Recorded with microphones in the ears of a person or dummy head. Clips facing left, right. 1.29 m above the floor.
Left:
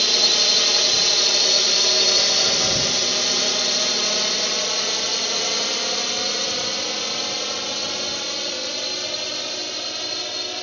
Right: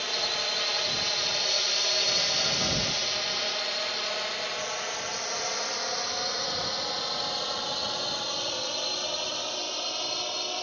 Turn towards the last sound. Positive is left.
turn(degrees=25)  # may be behind; listen again after turning